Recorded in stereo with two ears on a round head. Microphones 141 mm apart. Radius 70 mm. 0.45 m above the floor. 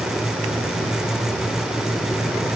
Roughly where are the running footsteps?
I don't hear running footsteps.